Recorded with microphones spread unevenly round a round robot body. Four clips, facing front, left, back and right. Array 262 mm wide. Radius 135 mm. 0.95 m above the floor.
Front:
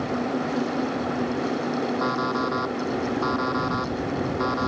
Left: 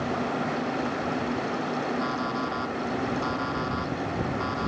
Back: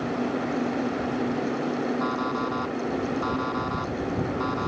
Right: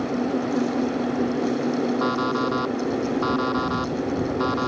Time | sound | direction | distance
2.0 | an alarm clock | 55° right | ?